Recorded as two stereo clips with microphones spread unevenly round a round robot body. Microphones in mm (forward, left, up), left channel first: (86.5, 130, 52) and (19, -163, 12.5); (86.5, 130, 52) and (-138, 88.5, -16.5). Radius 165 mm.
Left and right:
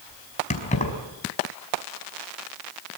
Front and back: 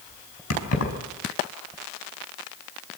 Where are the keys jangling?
10° left, 5 m.